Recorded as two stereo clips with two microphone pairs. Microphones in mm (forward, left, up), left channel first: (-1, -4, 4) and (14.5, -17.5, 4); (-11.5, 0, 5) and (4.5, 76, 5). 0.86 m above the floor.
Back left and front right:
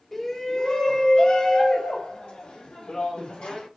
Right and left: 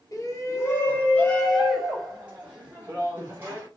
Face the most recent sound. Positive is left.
turn(degrees=135)